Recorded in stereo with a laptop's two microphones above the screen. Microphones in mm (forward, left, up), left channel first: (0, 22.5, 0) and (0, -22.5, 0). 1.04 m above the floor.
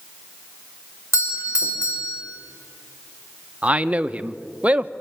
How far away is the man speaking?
About 0.7 m.